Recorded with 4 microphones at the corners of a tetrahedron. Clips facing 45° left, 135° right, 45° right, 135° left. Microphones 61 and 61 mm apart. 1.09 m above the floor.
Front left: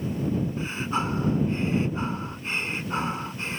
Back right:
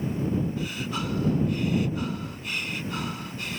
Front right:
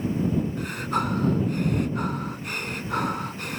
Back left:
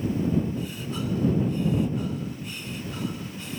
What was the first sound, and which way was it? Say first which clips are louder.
Breathing: front left 3 dB, front right 5 dB; 15° right.